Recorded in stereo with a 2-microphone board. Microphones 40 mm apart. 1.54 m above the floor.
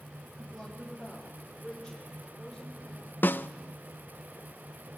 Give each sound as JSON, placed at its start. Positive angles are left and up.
{"t": 0.4, "sound": "a woman speaking", "side_deg": 0, "distance_m": 3.0}
{"t": 3.2, "sound": "a snare drum", "side_deg": 55, "distance_m": 0.8}